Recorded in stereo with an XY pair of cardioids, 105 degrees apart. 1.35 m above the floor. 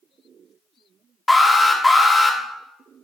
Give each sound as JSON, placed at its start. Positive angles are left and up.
{"t": 1.3, "sound": "an alarm", "azimuth_deg": 15, "distance_m": 1.7}